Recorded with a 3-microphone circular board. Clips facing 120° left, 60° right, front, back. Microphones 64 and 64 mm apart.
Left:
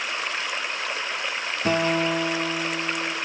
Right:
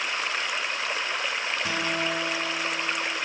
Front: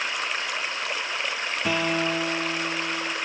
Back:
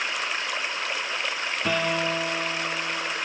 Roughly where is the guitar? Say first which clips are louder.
Left 9 dB, even; left.